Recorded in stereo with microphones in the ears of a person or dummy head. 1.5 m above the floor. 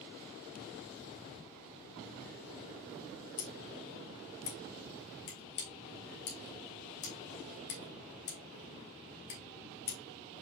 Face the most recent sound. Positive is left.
turn(degrees=50)  # may be behind; listen again after turning